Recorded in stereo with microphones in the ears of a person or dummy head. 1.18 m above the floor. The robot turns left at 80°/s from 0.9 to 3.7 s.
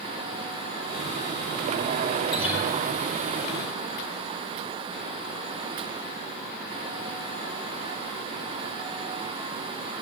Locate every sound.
2.3 s a guitar: 15° left (ahead or behind), 5.5 m; by 2.7 s 10° right (ahead or behind), 5.5 m